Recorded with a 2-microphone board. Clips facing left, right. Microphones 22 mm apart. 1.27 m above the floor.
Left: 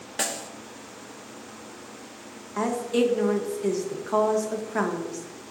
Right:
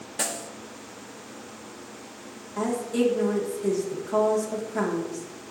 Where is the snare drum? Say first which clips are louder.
Left 1 dB; 25° left (ahead or behind), 0.5 m.